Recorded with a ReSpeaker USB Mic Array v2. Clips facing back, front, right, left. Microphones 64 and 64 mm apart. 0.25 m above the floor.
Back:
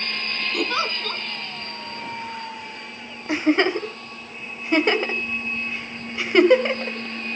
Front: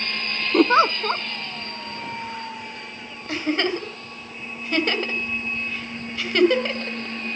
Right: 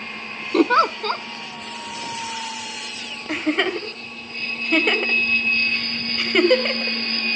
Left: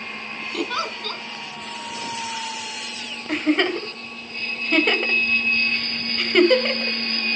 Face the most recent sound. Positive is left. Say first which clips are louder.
# back 4 dB, left 1 dB
turn(degrees=-175)